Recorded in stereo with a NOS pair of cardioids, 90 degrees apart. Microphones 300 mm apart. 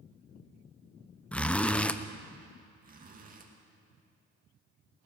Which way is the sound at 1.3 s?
5° left.